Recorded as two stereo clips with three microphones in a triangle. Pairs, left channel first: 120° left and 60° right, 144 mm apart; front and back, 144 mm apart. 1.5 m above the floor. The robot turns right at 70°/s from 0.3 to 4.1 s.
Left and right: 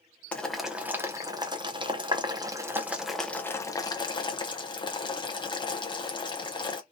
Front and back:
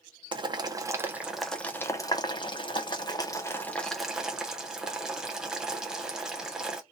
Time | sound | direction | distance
0.3 | boiling | 170° right | 0.5 m